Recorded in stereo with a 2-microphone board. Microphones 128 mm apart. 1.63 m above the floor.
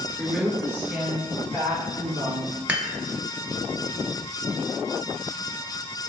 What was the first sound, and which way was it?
A woman speaking, centre (ahead or behind).